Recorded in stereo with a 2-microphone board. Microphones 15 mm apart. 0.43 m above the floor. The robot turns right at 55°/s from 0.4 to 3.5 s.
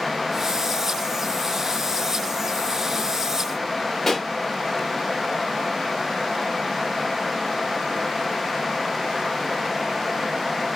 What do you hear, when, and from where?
4.1 s a pop: 15° left (ahead or behind), 0.7 m